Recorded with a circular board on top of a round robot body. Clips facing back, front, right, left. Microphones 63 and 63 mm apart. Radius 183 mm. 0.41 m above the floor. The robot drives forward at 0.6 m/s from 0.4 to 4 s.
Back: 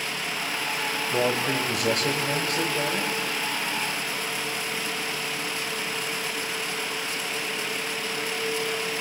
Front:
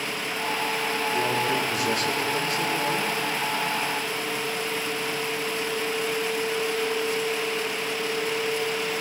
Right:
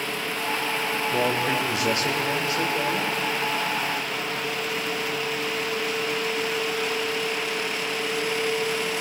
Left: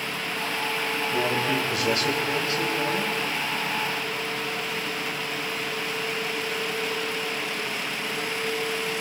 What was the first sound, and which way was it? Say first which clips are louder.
A man speaking: back 2 dB, right 1 dB; 155° right.